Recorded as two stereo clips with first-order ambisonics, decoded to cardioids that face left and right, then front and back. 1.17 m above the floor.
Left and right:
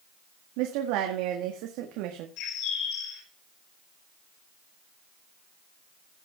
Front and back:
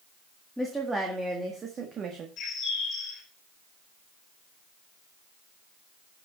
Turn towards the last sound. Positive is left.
turn(degrees=60)